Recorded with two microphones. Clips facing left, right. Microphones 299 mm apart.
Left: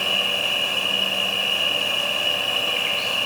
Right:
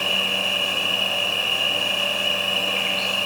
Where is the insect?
15° left (ahead or behind), 3.5 m.